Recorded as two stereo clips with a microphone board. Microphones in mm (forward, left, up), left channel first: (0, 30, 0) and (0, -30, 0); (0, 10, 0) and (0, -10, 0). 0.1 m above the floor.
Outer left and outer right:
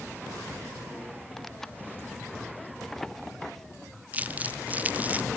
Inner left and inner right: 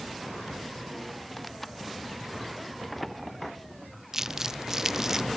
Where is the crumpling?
25° right (ahead or behind).